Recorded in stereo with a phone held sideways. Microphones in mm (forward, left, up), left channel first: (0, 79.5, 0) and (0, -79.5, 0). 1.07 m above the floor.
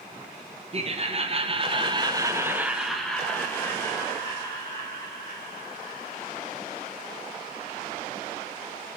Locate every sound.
0.7 s laughter: 40° right (ahead or behind), 1.0 m; by 6.5 s 30° left (ahead or behind), 2 m